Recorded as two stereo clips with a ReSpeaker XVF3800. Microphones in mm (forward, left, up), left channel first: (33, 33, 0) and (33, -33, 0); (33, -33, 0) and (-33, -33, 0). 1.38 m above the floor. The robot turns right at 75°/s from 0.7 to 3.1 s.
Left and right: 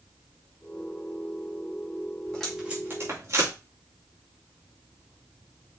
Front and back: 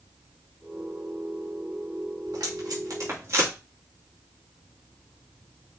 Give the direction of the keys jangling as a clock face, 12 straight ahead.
I don't hear keys jangling.